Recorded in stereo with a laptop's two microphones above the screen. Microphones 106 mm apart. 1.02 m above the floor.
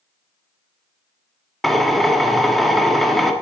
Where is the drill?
Centre (ahead or behind), 1.5 m.